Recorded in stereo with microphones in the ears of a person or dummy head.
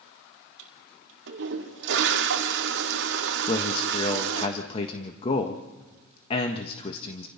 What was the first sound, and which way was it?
A toilet flushing, 70° right (ahead or behind).